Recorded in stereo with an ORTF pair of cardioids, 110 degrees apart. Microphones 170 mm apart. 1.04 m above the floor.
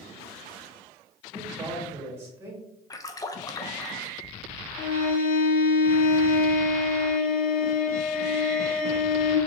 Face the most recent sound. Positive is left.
turn(degrees=60)